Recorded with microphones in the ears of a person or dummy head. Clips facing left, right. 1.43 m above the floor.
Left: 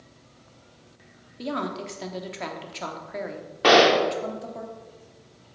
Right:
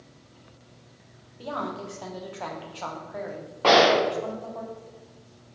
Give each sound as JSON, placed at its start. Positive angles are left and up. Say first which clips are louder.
{"t": 1.4, "sound": "a woman speaking", "louder": "left 3 dB", "side_deg": 35, "distance_m": 0.9}
{"t": 3.6, "sound": "a gunshot", "louder": "left 1 dB", "side_deg": 15, "distance_m": 0.6}